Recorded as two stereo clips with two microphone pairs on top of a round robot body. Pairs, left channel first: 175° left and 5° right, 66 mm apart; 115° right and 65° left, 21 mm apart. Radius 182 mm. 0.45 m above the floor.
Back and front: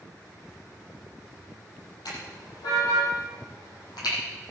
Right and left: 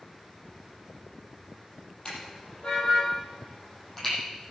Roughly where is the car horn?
Behind.